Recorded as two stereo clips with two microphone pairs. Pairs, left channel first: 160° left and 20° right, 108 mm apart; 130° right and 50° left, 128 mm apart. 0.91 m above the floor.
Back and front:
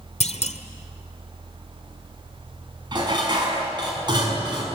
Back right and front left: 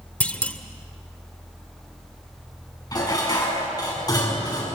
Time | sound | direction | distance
0.2 | a clunk | 150° left | 1.3 m
2.9 | dishes clattering | 70° right | 6 m